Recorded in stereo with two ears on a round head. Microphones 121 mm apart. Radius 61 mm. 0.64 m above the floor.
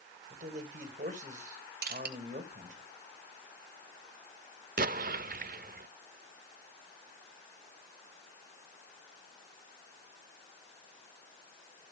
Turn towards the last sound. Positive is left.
turn(degrees=-65)  # may be behind; listen again after turning